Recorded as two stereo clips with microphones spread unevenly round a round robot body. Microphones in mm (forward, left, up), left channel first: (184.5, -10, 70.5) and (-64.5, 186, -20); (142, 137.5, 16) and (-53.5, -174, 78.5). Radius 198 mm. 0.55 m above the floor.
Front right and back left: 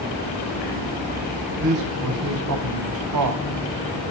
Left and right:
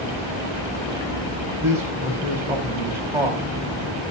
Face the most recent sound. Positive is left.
turn(degrees=150)